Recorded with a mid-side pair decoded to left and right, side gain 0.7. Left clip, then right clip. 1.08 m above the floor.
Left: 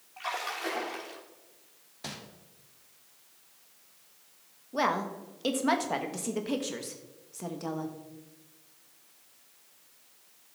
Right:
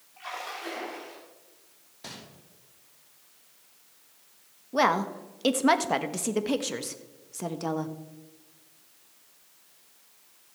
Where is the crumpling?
20° left, 2.5 m.